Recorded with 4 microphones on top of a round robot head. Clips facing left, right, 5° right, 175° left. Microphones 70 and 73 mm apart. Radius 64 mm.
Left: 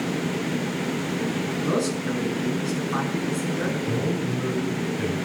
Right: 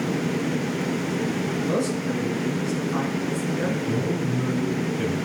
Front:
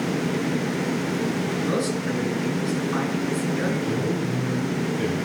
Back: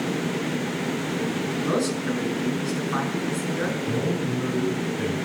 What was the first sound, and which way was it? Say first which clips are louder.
A man speaking: left 1 dB, back 2 dB; 110° left.